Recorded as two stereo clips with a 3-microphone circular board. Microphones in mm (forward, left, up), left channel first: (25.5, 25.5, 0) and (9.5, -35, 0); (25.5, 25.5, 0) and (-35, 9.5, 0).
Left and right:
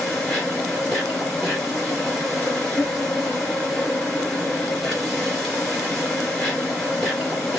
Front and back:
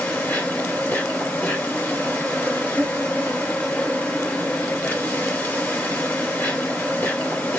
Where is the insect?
5° right, 2 m.